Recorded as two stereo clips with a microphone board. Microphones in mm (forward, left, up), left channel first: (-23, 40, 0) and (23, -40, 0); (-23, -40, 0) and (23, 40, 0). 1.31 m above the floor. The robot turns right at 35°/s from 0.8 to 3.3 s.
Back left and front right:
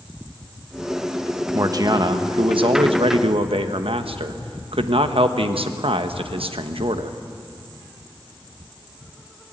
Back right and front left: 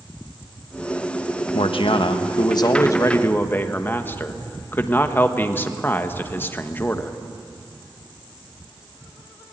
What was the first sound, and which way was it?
A man speaking, 115° right.